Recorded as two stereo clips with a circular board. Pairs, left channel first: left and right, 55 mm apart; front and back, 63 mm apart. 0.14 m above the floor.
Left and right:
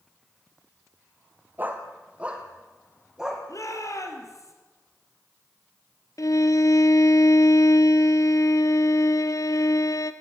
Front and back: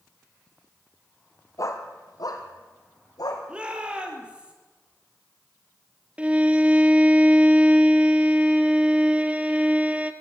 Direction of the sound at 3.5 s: 105° left.